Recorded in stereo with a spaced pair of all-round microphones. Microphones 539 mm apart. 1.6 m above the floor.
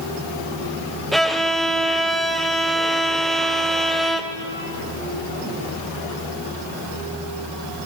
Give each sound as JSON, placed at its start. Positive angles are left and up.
{"t": 1.1, "sound": "a violin", "side_deg": 0, "distance_m": 0.8}